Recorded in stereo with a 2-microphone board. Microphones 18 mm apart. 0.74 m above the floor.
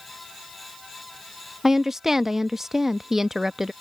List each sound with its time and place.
1.6 s a woman speaking: 25° right (ahead or behind)